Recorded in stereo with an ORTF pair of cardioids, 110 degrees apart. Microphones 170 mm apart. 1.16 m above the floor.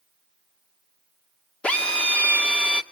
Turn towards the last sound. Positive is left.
turn(degrees=5)